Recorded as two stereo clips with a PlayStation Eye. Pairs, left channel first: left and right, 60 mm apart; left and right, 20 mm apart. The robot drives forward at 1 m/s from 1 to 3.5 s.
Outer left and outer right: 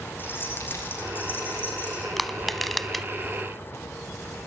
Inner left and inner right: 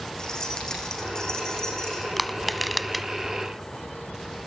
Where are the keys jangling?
35° left (ahead or behind), 7.5 m; by 2.1 s 30° left (ahead or behind), 8.5 m.